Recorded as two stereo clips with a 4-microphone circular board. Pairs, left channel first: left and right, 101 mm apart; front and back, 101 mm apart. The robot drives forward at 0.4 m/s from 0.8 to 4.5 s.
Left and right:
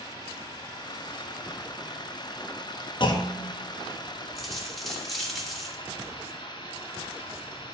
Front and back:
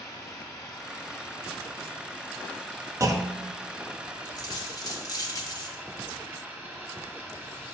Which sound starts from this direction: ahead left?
Running water, at 0.0 s.